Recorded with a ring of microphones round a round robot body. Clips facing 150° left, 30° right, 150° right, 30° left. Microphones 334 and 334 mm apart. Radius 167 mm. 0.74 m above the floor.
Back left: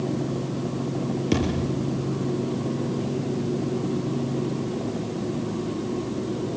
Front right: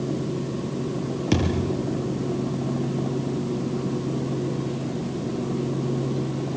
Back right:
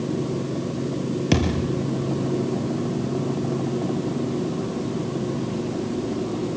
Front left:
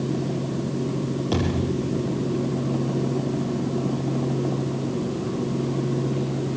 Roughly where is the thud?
Right.